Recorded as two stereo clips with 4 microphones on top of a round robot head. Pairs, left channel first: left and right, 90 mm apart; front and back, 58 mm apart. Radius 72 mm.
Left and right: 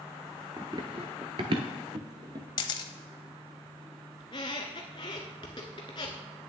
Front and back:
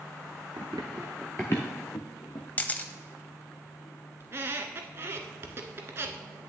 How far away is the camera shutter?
About 0.5 m.